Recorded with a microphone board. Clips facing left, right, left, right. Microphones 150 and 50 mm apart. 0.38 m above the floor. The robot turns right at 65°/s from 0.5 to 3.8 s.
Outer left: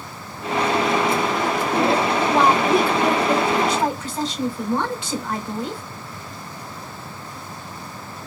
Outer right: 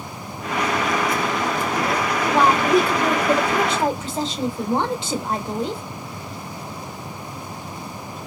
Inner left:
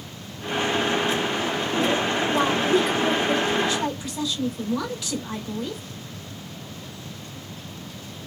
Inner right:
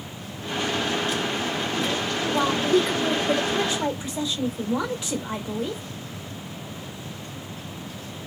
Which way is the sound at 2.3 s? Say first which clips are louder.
Outer right 1 dB, inner right 1 dB; 135° left.